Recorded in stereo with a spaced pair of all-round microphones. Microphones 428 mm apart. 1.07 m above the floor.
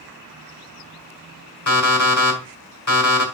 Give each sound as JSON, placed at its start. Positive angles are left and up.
{"t": 1.7, "sound": "an alarm clock", "side_deg": 45, "distance_m": 2.0}